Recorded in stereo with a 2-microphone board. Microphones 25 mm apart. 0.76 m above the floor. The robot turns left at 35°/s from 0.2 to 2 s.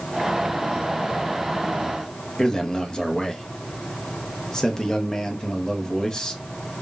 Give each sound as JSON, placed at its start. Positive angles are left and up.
{"t": 2.4, "sound": "a man speaking", "side_deg": 25, "distance_m": 0.6}